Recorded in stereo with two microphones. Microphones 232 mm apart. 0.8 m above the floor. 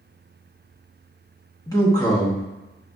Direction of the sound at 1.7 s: 15° left (ahead or behind).